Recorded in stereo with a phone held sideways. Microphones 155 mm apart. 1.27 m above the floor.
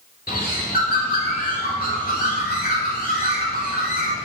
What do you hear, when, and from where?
0.3 s a bird: 80° left, 3.5 m